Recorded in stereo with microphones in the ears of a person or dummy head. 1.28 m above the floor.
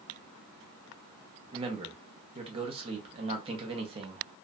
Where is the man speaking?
35° right (ahead or behind), 0.7 m.